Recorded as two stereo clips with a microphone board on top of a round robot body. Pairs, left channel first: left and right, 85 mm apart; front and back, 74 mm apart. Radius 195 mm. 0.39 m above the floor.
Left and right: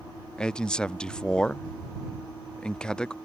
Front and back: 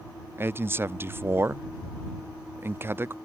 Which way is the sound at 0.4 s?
160° left.